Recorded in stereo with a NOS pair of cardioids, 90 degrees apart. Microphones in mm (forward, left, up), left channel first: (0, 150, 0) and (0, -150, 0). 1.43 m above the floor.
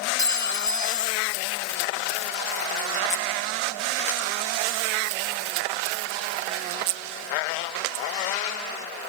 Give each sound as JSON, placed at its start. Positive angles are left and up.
{"t": 0.2, "sound": "a clink", "azimuth_deg": 10, "distance_m": 1.5}